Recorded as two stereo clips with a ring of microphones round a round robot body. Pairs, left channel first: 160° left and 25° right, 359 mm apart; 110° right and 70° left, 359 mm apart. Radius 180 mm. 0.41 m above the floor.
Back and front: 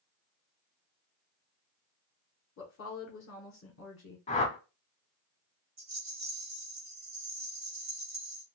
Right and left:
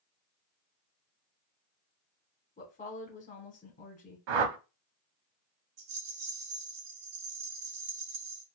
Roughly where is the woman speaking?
Behind.